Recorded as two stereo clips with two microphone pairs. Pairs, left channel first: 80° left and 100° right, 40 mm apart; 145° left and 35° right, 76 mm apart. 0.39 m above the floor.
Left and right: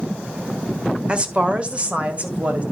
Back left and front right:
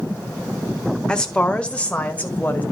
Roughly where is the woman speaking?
Behind right.